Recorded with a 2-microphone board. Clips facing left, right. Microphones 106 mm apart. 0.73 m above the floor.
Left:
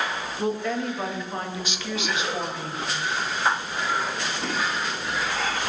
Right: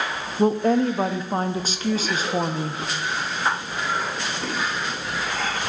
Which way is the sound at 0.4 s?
35° right (ahead or behind).